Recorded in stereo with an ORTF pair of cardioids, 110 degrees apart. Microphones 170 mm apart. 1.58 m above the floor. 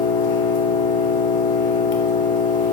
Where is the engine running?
50° left, 1.6 m.